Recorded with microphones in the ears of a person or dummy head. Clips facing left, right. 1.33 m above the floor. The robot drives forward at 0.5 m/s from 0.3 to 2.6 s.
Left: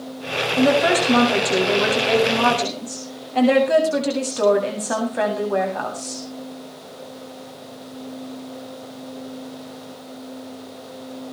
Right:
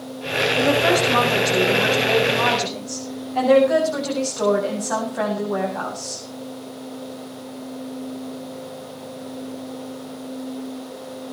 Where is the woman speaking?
50° left (ahead or behind), 7.5 m; by 6.2 s 45° left (ahead or behind), 8.5 m.